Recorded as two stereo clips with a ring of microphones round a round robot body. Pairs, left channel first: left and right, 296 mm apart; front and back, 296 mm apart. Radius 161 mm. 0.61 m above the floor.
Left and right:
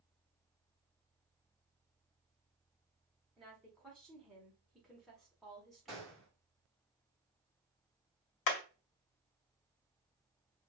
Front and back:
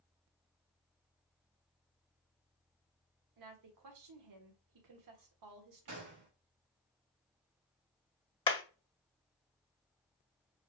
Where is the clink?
I don't hear a clink.